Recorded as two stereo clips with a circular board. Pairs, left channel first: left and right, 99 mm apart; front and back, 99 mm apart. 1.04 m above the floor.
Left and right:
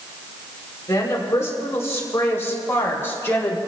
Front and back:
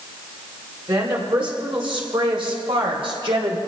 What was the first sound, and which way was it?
A woman speaking, 150° left.